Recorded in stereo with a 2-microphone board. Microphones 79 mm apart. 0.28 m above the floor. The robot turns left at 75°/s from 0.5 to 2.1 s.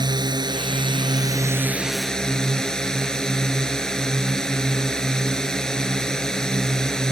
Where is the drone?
70° right; by 7.1 s 170° left.